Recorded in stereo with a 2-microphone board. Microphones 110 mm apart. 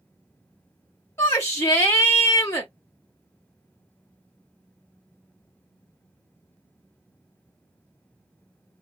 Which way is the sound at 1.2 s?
25° left (ahead or behind).